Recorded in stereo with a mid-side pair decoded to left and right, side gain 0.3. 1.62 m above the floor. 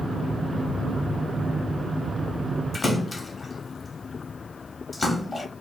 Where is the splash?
40° left, 0.8 m.